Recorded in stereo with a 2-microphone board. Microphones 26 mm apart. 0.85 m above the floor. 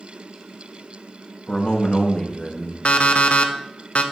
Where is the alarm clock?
60° left (ahead or behind), 0.5 m.